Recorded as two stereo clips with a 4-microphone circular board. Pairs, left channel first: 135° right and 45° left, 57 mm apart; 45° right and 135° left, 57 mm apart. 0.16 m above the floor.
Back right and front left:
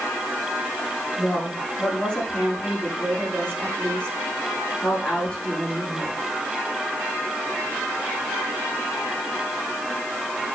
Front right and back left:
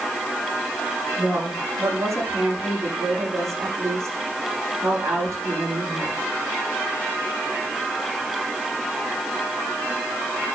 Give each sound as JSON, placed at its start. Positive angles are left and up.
{"t": 1.2, "sound": "a woman speaking", "azimuth_deg": 160, "distance_m": 7.5}